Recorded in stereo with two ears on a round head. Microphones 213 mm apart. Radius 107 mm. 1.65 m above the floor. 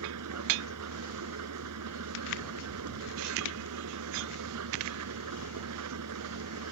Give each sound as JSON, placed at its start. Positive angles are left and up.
{"t": 0.0, "sound": "an engine running", "side_deg": -80}